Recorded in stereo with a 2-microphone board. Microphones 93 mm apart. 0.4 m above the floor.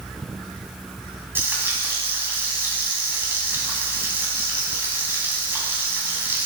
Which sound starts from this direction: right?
Frying, at 1.4 s.